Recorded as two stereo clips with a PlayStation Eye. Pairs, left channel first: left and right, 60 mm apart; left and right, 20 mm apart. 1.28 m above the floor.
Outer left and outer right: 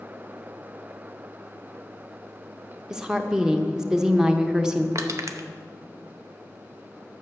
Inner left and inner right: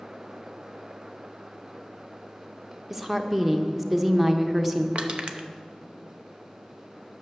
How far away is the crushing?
About 0.8 m.